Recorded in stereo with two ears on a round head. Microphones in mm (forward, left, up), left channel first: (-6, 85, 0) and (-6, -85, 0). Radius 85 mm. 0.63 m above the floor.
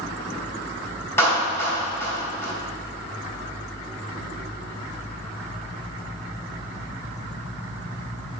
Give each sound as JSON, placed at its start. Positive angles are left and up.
{"t": 1.2, "sound": "a clap", "side_deg": 15, "distance_m": 3.0}